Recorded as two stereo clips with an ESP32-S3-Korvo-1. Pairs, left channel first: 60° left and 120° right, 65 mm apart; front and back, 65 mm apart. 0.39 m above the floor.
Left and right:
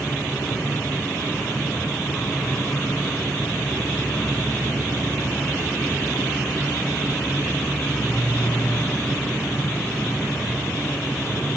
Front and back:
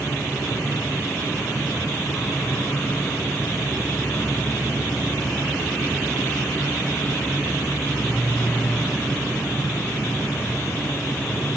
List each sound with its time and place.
0.0 s an insect: 5° left, 1.4 m